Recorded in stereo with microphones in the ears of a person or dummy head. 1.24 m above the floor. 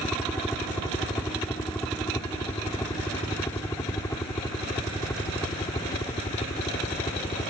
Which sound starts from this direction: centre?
A helicopter, at 0.0 s.